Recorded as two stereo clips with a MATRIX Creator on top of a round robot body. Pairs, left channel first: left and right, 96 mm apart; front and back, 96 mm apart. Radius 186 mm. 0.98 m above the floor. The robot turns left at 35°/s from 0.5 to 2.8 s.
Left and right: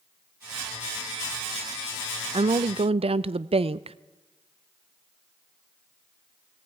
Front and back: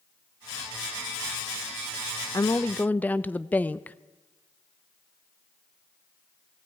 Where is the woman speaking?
60° right, 0.7 m; by 4.0 s 75° right, 0.7 m.